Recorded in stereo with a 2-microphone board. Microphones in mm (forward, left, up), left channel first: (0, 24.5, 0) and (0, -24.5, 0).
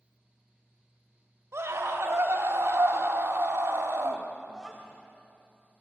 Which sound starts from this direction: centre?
A child speaking, at 4.5 s.